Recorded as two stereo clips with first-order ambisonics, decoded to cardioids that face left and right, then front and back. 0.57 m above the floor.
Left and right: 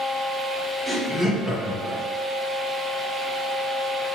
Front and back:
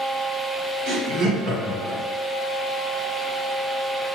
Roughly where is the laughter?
Behind.